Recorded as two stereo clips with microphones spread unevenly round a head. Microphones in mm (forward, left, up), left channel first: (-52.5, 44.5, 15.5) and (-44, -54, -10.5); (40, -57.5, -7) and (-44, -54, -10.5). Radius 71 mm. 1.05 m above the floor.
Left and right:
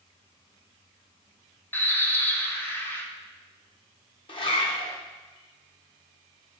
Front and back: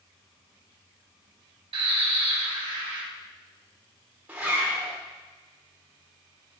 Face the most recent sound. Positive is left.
turn(degrees=100)